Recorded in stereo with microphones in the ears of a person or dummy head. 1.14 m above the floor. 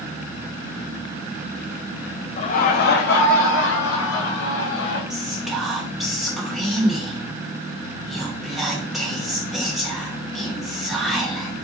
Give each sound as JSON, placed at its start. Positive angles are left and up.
{"t": 2.4, "sound": "laughter", "side_deg": 35, "distance_m": 0.5}
{"t": 5.1, "sound": "whispering", "side_deg": 0, "distance_m": 1.0}